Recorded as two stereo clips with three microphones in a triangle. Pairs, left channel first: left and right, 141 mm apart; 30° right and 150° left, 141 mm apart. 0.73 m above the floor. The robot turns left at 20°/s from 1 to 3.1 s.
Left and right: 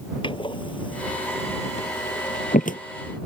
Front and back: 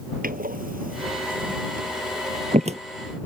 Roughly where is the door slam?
Behind left.